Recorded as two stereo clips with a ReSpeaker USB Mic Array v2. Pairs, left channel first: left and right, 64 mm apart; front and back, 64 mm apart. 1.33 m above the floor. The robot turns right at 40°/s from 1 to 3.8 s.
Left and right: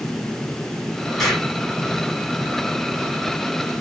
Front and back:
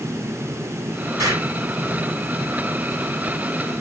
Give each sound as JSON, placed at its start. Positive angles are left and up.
{"t": 1.2, "sound": "an explosion", "azimuth_deg": 175, "distance_m": 2.5}